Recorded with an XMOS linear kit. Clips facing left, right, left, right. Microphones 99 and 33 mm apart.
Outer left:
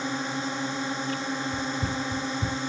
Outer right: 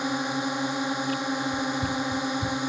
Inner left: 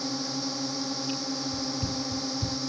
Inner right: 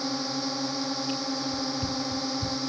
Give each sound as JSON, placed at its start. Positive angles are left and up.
{"t": 0.0, "sound": "a drone", "side_deg": -15}
{"t": 1.5, "sound": "running footsteps", "side_deg": 15}